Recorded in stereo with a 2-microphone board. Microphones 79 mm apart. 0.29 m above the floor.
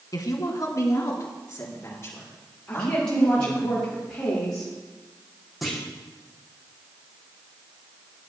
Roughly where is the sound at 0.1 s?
Left.